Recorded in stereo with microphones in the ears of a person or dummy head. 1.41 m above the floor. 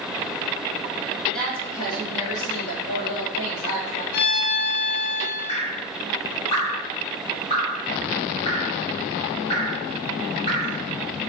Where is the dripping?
25° left (ahead or behind), 1.0 m.